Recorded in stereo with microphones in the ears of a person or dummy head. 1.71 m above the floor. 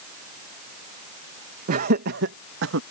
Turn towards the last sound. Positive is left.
turn(degrees=-80)